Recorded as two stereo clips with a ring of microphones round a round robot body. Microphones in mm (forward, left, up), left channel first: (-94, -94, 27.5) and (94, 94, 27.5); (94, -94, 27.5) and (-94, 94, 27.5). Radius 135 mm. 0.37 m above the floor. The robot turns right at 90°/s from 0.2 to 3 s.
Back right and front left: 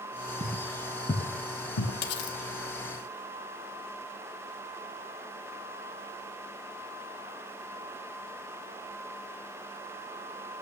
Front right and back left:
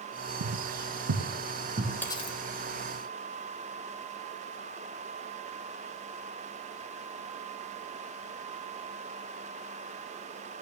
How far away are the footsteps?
About 0.8 m.